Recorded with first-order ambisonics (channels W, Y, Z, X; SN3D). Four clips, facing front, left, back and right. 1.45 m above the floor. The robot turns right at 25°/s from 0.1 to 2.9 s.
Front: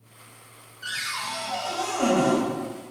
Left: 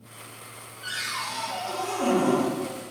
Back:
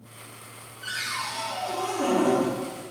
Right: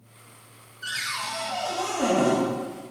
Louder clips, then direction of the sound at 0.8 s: Right 1 dB, front 1 dB; 45° right.